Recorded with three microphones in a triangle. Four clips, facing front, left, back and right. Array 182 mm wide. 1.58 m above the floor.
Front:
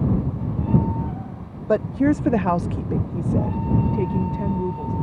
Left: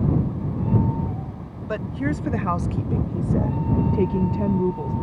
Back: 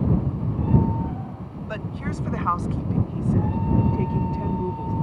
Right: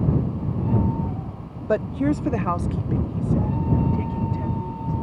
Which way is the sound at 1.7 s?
30° right.